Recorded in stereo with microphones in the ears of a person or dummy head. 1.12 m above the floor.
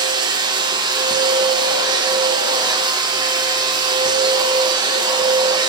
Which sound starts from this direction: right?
A machine running, at 0.0 s.